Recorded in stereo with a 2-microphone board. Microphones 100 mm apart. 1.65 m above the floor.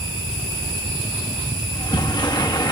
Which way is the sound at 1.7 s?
45° left (ahead or behind).